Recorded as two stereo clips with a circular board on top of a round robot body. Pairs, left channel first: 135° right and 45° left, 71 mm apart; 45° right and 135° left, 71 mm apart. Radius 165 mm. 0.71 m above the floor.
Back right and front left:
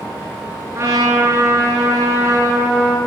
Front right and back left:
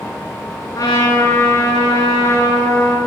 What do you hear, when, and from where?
0.8 s a trumpet: 10° right, 3.5 m